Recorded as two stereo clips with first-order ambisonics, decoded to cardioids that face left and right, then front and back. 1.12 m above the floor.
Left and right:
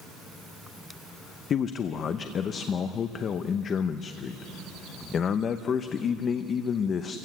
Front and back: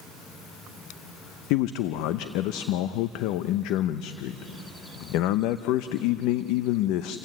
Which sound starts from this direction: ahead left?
A man speaking, at 1.5 s.